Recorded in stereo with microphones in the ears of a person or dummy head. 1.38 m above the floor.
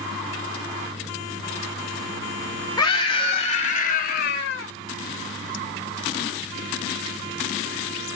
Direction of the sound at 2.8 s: 25° left (ahead or behind).